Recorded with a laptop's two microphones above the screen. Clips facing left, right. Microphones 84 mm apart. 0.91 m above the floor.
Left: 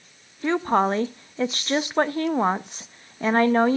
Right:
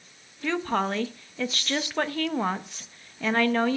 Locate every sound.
0.4 s a woman speaking: 30° left (ahead or behind), 0.6 m